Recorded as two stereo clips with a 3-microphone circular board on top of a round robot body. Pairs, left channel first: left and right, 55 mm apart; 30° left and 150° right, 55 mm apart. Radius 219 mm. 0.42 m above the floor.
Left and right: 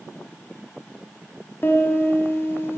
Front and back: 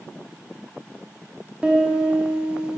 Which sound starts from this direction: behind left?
A piano, at 1.6 s.